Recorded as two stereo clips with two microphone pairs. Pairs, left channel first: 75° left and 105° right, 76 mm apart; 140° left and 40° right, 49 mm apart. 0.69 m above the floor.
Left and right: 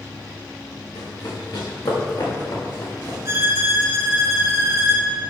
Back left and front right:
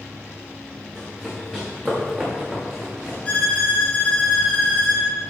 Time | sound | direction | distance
0.9 | running footsteps | 60° left | 3 m
3.2 | a violin | 155° right | 1.5 m